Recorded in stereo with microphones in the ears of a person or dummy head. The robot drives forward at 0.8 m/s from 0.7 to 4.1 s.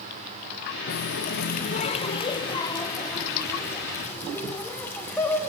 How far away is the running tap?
About 0.8 m.